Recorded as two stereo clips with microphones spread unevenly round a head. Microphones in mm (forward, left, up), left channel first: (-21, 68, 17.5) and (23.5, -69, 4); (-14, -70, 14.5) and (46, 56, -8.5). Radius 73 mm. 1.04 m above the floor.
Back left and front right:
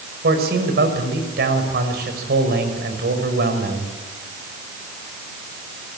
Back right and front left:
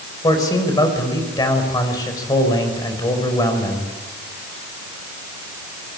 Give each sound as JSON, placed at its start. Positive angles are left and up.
{"t": 0.2, "sound": "a man speaking", "azimuth_deg": -50, "distance_m": 6.0}